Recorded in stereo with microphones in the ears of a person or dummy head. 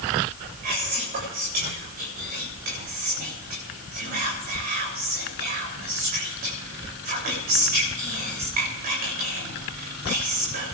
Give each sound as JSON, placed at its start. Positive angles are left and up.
{"t": 0.6, "sound": "whispering", "side_deg": -45, "distance_m": 8.0}